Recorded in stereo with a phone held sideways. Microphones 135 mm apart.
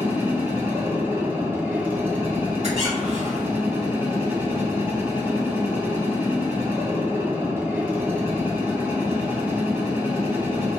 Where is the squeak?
55° right (ahead or behind), 1.8 m.